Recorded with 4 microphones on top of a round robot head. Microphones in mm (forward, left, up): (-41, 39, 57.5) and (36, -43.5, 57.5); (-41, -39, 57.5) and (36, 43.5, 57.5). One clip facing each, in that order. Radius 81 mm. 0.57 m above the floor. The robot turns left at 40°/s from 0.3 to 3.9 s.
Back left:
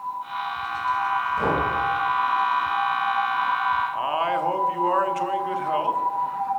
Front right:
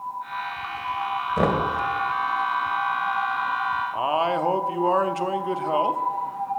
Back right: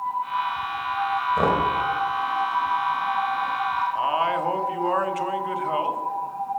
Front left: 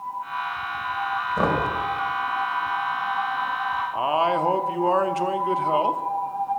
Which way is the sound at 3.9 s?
5° left.